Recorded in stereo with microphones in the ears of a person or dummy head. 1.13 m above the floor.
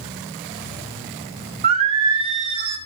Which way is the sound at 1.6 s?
30° right (ahead or behind).